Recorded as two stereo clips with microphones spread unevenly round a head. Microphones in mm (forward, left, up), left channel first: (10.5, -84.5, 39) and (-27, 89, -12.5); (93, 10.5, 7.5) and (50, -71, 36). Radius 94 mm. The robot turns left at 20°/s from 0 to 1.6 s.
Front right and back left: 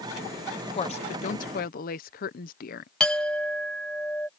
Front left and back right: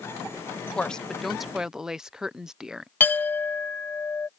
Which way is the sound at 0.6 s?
15° right.